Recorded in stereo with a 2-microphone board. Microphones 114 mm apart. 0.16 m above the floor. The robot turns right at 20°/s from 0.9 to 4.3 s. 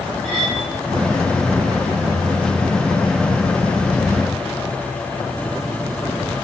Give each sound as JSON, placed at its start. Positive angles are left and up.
{"t": 0.2, "sound": "cutlery clinking", "side_deg": 5, "distance_m": 3.0}